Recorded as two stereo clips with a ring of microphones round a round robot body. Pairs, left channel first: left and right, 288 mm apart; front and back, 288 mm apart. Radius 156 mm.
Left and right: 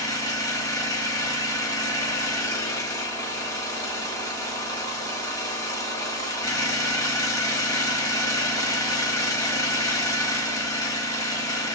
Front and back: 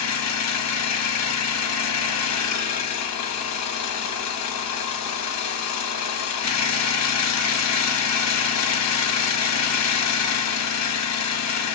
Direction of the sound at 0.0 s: 15° left.